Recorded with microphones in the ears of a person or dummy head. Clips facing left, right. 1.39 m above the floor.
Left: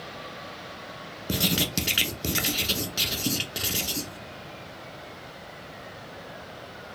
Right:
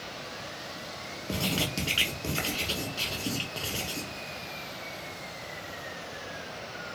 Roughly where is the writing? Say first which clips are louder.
Left 3 dB; centre.